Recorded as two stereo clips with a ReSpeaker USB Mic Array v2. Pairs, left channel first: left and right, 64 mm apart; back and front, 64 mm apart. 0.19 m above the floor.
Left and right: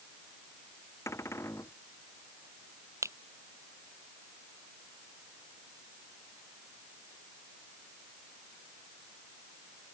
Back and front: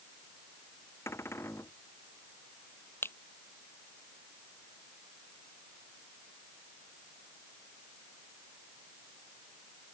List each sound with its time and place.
1.1 s a cupboard door: 135° left
3.0 s a finger snap: 130° right